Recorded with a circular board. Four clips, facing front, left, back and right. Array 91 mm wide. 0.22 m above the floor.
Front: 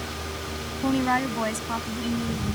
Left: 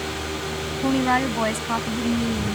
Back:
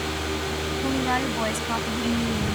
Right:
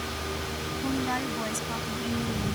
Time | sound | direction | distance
0.8 | a woman speaking | 70° left | ?